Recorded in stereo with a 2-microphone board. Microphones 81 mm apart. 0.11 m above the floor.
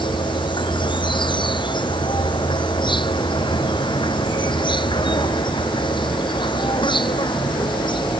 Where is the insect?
65° left (ahead or behind).